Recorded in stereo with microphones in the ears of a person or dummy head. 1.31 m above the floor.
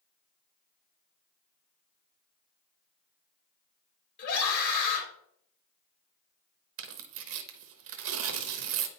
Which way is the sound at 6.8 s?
70° right (ahead or behind).